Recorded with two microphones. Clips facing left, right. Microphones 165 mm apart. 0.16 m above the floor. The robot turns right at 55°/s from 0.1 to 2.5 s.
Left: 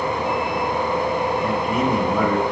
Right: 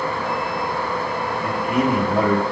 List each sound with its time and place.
1.4 s a man speaking: 110° right, 4 m; by 2.4 s 55° right, 4 m